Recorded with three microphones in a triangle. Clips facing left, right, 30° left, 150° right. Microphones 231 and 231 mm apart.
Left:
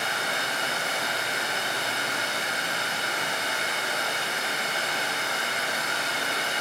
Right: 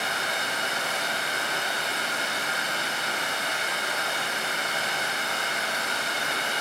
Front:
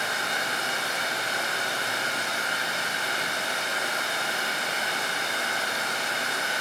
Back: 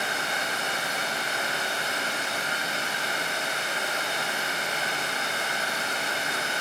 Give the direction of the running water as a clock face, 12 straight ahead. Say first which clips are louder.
Even, even; 7 o'clock.